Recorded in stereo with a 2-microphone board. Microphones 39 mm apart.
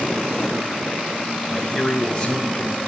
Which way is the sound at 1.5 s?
10° right (ahead or behind).